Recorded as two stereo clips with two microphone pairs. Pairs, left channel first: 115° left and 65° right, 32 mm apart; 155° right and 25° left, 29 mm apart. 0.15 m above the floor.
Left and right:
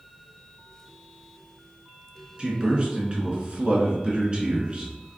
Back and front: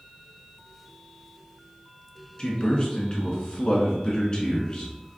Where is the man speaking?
110° right, 1.6 m.